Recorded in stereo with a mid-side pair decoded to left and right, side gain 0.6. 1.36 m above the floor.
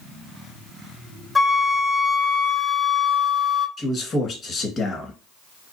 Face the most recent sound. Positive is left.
turn(degrees=40)